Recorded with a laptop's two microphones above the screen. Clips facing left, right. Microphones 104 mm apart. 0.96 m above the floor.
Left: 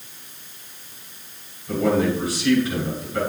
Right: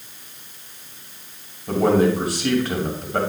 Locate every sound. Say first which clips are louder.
1.7 s a man speaking: right 3 dB; 60° right (ahead or behind), 2.5 m